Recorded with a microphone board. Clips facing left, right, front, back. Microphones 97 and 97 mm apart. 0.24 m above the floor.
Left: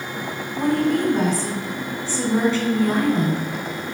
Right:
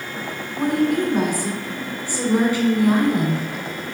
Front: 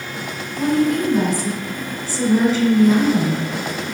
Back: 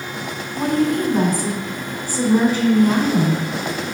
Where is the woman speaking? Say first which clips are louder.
Even, front 1 dB; 165° right, 2 m.